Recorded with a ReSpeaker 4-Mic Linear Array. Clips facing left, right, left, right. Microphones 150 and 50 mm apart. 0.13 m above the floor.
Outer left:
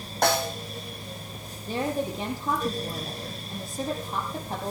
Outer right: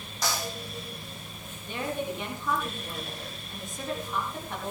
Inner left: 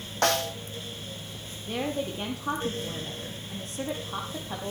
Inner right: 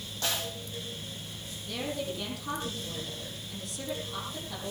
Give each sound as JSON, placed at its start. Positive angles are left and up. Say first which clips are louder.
{"t": 0.2, "sound": "a snare drum", "louder": "outer left 8 dB, inner left 9 dB", "side_deg": 70, "distance_m": 1.6}
{"t": 1.7, "sound": "a woman speaking", "louder": "outer left 4 dB, inner left 4 dB", "side_deg": 40, "distance_m": 5.0}